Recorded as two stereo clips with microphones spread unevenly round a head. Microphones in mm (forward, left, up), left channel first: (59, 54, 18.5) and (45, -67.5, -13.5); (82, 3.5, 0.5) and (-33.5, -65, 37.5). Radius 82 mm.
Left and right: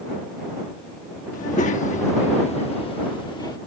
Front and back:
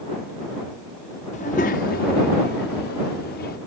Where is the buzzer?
I don't hear a buzzer.